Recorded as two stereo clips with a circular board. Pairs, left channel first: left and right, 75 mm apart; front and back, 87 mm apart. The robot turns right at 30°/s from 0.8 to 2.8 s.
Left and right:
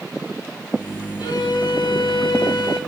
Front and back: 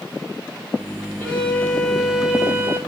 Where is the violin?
70° left, 2.5 m; by 2.8 s 115° left, 2.5 m.